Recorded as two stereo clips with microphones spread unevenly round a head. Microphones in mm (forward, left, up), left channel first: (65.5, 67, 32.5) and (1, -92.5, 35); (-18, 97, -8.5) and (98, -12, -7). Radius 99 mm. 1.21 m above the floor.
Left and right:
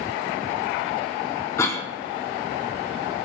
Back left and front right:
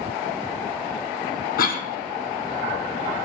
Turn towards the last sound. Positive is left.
turn(degrees=140)